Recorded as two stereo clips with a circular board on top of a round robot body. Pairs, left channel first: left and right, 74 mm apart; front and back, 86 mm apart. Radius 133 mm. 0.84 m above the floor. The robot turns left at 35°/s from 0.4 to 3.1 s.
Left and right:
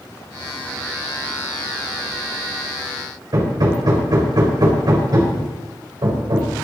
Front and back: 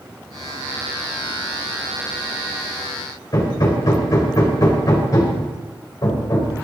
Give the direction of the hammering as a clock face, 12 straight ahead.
2 o'clock.